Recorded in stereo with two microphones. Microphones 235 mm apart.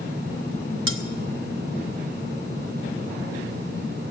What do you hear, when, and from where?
0.9 s cutlery clinking: 60° right (ahead or behind), 0.9 m